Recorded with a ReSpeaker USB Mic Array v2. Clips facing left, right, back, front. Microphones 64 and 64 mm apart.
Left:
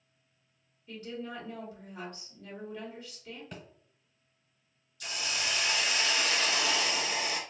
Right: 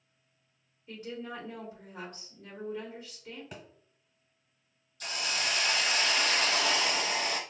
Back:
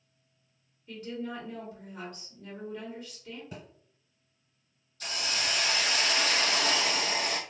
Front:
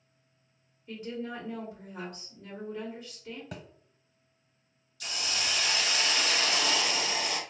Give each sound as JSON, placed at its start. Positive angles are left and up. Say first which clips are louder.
{"t": 0.9, "sound": "a woman speaking", "louder": "even, even", "azimuth_deg": -55, "distance_m": 1.1}
{"t": 3.5, "sound": "a thud", "louder": "even, front 1 dB", "azimuth_deg": -5, "distance_m": 0.8}
{"t": 5.0, "sound": "a hiss", "louder": "right 2 dB, back 1 dB", "azimuth_deg": -130, "distance_m": 0.7}